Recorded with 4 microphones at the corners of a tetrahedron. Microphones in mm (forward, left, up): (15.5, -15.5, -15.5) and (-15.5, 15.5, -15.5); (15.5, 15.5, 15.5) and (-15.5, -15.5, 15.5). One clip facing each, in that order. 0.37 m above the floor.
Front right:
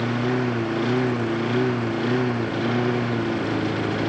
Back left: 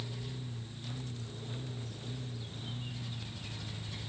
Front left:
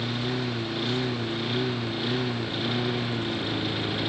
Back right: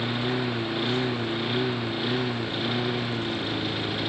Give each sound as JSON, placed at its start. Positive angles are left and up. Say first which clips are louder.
{"t": 0.0, "sound": "a lawn mower", "louder": "front right 21 dB, back right 2 dB", "azimuth_deg": -60}